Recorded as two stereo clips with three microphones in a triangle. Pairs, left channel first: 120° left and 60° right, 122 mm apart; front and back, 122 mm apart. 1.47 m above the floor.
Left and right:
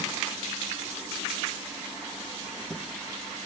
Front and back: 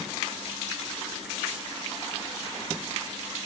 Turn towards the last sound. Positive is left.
No sound to turn to.